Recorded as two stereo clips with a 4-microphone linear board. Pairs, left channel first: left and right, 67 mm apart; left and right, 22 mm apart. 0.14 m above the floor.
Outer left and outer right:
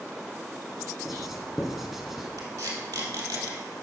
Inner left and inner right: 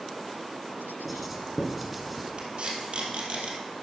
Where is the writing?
5° right (ahead or behind), 1.5 m.